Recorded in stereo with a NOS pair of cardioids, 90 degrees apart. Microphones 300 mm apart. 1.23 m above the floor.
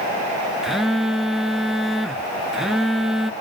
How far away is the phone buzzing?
About 0.7 m.